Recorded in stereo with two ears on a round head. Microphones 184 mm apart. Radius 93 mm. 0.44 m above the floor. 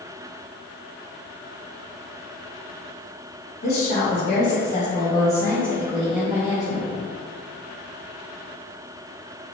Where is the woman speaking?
50° left (ahead or behind), 1.7 m; by 6.9 s 25° right (ahead or behind), 1.5 m.